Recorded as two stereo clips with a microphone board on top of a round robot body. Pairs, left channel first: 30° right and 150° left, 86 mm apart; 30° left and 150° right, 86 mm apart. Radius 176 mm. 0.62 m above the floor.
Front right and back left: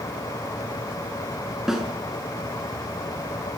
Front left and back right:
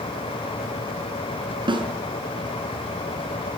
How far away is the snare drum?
About 6 m.